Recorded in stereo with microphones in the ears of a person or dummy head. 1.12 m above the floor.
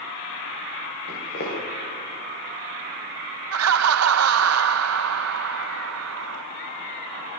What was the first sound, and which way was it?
Footsteps, 60° left (ahead or behind).